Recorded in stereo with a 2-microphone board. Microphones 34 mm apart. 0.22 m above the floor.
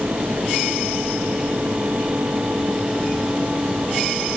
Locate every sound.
Only background noise.